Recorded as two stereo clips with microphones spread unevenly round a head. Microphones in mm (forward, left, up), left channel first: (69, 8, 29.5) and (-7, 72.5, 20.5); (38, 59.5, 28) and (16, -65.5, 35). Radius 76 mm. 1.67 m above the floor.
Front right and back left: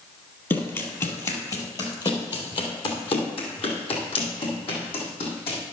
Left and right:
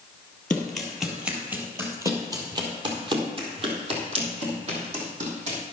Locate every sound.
0.5 s running footsteps: 5° right, 1.9 m; by 5.6 s 80° right, 3.5 m